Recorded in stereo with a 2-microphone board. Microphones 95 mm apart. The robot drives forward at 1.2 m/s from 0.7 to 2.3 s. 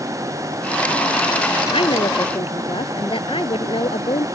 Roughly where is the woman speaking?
Left.